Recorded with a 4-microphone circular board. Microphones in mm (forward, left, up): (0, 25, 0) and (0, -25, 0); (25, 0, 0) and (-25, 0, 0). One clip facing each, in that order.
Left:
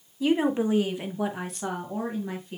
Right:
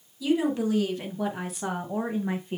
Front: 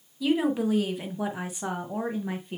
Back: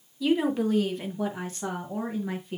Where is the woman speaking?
85° left, 1.4 m; by 2.6 s 60° right, 1.4 m.